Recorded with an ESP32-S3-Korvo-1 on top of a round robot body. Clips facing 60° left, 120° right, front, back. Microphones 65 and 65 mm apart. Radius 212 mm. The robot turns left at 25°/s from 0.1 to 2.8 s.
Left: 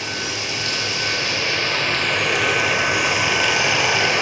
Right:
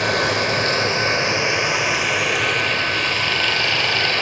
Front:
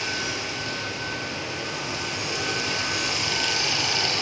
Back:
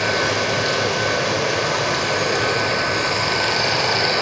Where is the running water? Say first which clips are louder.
Right 8 dB, back 10 dB; 150° right, 1.0 m; by 4.2 s 140° left, 1.0 m.